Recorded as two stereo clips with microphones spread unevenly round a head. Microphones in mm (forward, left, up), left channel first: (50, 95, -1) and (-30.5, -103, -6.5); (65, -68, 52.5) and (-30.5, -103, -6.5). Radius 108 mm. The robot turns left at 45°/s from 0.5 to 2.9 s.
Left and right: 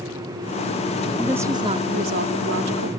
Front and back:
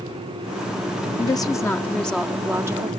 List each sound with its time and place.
1.2 s a woman speaking: 25° right; by 2.9 s 100° right